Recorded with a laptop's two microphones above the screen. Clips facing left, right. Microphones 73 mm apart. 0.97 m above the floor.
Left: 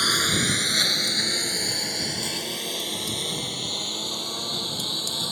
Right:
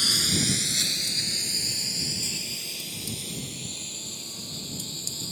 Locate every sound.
0.0 s a lawn mower: 50° left (ahead or behind); by 5.3 s 65° left (ahead or behind)